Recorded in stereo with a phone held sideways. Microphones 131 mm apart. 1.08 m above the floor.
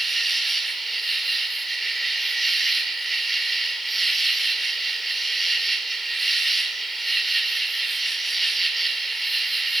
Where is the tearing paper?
I don't hear tearing paper.